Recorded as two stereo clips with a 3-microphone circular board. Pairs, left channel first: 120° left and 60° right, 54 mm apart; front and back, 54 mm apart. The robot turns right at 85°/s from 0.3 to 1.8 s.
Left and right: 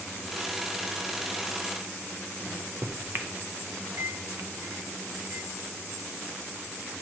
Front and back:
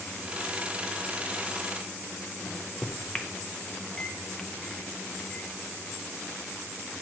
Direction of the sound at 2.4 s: 75° right.